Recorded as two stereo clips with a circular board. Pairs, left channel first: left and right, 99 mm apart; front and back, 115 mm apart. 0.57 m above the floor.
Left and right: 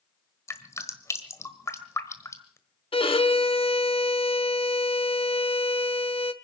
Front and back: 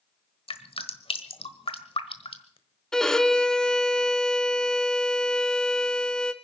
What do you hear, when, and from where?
0.5 s dripping: 30° left, 1.3 m
2.9 s a violin: 85° left, 0.8 m